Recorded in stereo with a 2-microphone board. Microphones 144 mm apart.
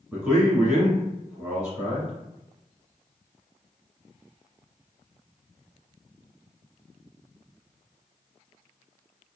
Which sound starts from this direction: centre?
A man speaking, at 0.1 s.